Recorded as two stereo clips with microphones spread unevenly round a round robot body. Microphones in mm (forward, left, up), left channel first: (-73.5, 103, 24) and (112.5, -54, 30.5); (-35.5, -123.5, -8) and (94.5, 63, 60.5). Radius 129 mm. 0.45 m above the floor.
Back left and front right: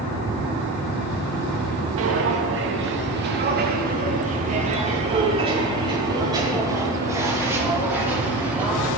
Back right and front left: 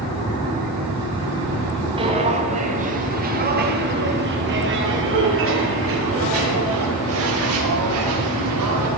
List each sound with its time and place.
2.0 s footsteps: 10° right, 4 m; by 8.9 s 45° left, 8.5 m